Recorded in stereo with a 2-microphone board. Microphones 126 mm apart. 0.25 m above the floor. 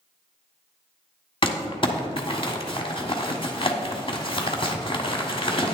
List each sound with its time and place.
1.4 s crumpling: 45° left (ahead or behind), 1.3 m